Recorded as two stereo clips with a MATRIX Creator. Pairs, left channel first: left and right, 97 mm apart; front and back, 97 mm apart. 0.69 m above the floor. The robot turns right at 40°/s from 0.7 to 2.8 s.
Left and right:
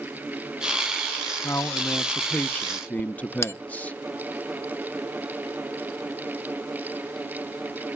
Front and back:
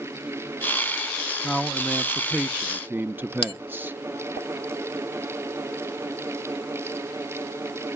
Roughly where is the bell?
Ahead left.